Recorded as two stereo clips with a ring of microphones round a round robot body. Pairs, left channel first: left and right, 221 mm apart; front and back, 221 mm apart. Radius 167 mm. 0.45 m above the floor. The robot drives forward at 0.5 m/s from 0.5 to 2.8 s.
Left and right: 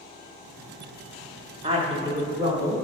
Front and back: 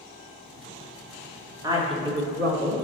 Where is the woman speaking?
120° right, 0.9 m; by 2.8 s 155° right, 1.2 m.